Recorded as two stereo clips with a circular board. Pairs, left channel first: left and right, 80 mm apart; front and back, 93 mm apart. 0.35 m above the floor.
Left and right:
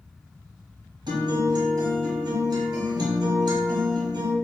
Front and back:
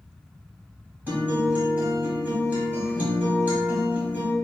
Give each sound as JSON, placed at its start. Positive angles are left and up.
{"t": 1.1, "sound": "a guitar", "azimuth_deg": -110, "distance_m": 1.0}